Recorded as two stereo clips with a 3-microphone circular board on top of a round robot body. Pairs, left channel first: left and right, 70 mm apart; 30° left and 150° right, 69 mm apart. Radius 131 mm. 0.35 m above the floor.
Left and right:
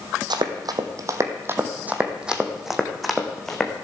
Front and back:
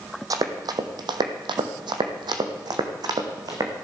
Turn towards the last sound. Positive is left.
turn(degrees=170)